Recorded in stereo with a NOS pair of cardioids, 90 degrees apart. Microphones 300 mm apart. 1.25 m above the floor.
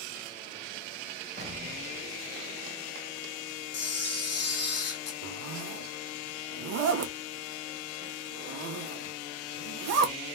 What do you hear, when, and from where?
1.4 s an explosion: 25° right, 1.0 m
3.7 s a camera shutter: 55° left, 1.0 m
5.2 s a zipper: 60° right, 0.6 m